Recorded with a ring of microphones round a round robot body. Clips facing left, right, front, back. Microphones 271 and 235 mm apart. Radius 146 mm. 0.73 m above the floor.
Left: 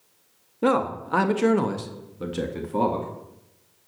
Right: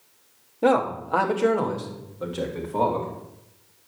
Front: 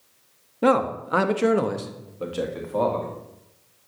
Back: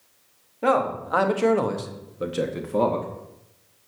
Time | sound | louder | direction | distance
0.6 | a man speaking | right 1 dB, front 2 dB | 25° left | 1.7 m